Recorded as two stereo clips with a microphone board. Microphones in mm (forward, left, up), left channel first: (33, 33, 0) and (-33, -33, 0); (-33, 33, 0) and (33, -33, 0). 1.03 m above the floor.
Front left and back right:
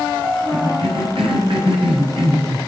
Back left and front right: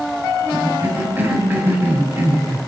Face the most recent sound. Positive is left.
turn(degrees=-115)